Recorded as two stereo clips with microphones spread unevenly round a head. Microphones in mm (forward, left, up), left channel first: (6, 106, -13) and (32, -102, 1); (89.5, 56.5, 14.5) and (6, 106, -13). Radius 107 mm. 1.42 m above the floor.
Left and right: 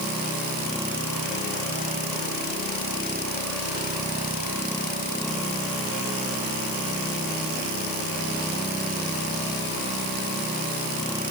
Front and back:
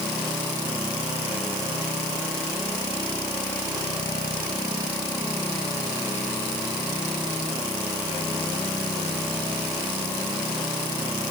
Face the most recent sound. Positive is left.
No sound to turn to.